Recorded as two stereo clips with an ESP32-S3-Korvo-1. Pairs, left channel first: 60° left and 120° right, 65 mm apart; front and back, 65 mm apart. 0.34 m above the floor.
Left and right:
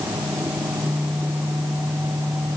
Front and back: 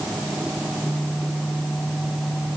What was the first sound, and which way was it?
Only background noise.